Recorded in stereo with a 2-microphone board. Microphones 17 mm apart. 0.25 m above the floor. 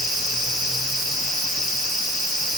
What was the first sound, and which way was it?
Only background noise.